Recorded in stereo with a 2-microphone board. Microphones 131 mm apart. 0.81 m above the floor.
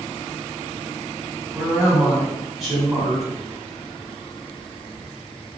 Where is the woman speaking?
Centre (ahead or behind), 2.0 m.